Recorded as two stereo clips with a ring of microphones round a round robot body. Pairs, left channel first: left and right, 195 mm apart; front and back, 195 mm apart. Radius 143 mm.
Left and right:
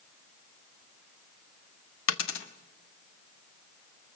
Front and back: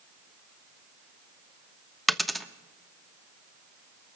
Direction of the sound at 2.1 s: 90° left.